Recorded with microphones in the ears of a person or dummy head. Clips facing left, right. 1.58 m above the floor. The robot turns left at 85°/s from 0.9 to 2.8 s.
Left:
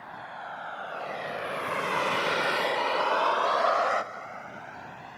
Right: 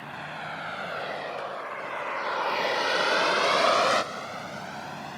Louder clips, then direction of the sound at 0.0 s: Right 3 dB; 40° right (ahead or behind).